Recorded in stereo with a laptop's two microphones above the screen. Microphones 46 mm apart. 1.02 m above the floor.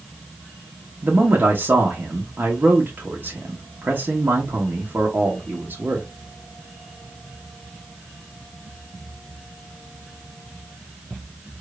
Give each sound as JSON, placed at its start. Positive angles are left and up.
{"t": 1.0, "sound": "a man speaking", "side_deg": -45, "distance_m": 1.0}